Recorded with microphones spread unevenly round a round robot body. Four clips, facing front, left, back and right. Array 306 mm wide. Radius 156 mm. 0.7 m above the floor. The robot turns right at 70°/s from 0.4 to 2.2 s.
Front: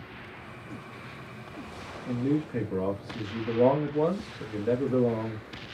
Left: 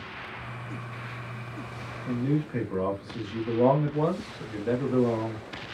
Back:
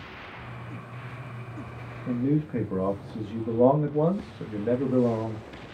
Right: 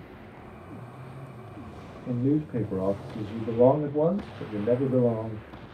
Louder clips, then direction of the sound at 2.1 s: Right 2 dB, back 2 dB; 160° right.